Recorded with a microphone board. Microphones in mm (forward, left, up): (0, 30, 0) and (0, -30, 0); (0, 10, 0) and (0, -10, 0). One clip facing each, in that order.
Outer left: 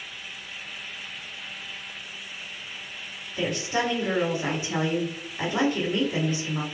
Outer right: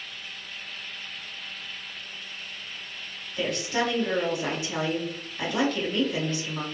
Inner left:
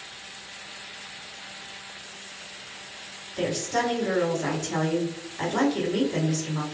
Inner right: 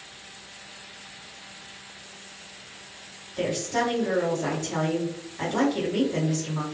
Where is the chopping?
I don't hear chopping.